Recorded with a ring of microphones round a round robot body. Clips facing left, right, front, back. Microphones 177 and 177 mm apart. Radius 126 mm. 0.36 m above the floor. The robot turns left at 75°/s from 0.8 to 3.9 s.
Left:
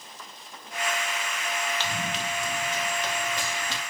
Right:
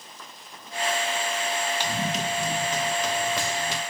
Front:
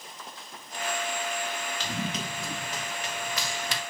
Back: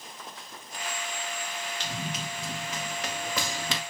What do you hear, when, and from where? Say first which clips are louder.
1.8 s running footsteps: right 4 dB, front 3 dB; 10° right, 4.5 m; by 3.8 s straight behind, 1.8 m